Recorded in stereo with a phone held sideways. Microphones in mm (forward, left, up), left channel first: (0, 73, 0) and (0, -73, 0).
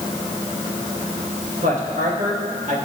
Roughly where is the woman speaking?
Right.